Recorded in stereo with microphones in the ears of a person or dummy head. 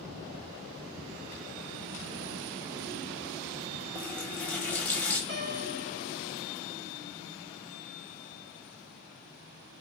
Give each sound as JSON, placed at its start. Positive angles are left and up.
{"t": 4.0, "sound": "a running tap", "side_deg": 5, "distance_m": 0.7}
{"t": 5.3, "sound": "a piano", "side_deg": -30, "distance_m": 2.5}